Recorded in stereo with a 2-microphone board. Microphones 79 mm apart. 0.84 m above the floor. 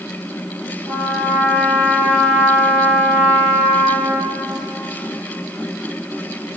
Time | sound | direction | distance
0.9 | a trumpet | 45° right (ahead or behind) | 0.9 m